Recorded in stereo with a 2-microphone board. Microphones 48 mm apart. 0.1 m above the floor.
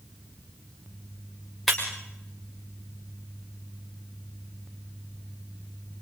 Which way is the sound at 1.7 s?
Centre (ahead or behind).